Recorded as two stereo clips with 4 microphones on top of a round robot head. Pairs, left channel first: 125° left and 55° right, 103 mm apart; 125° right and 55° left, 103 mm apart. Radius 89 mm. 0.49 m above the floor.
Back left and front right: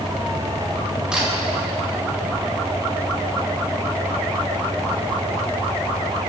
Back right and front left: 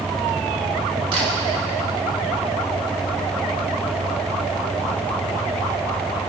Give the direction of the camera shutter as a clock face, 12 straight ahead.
11 o'clock.